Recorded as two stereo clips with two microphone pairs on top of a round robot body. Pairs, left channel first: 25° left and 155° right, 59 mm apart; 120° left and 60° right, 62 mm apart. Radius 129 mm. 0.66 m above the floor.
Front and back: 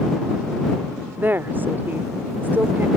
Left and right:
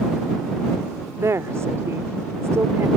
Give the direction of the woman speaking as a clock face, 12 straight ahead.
3 o'clock.